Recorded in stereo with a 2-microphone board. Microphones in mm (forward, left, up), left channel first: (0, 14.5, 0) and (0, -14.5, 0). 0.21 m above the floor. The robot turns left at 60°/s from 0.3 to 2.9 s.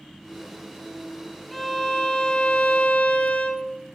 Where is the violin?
Straight behind, 1.0 m; by 3.6 s 95° left, 1.0 m.